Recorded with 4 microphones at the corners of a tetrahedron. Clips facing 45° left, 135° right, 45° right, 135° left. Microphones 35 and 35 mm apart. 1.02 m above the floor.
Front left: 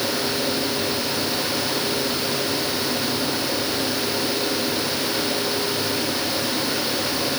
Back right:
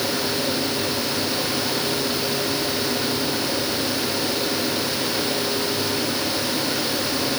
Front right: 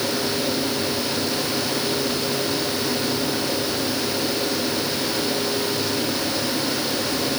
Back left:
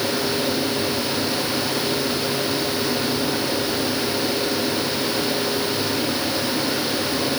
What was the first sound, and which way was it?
Only background noise.